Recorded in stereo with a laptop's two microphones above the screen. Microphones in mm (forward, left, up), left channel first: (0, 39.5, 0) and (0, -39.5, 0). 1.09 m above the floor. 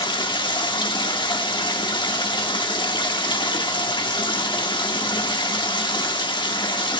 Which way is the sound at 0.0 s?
70° left (ahead or behind).